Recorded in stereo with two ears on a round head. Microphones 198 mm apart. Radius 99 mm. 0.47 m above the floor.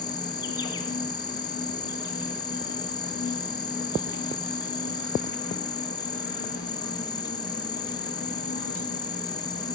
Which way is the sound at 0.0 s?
20° left (ahead or behind).